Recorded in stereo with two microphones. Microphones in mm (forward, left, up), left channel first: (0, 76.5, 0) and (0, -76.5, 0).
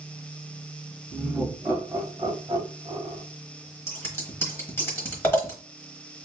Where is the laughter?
Centre (ahead or behind), 1.4 m; by 3.2 s 35° right (ahead or behind), 1.5 m.